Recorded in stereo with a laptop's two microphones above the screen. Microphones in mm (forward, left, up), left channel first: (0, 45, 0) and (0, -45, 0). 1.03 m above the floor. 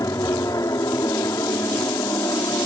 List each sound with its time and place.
0.0 s an aircraft: 40° left (ahead or behind)